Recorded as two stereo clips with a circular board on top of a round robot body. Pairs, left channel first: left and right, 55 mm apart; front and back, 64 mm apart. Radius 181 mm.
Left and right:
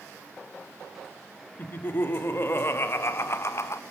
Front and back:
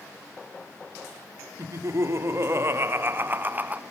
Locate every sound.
1.6 s laughter: 140° left, 4 m; by 3.8 s 120° left, 1.9 m